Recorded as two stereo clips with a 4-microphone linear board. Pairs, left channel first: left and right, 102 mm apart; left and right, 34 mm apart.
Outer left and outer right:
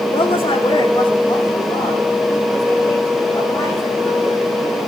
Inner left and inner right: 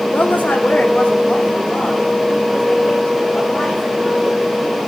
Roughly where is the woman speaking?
Left.